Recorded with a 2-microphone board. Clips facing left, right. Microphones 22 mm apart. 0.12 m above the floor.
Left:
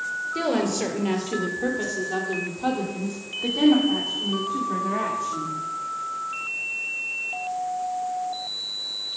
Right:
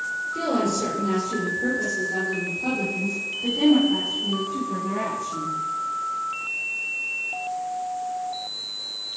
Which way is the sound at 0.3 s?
45° left (ahead or behind).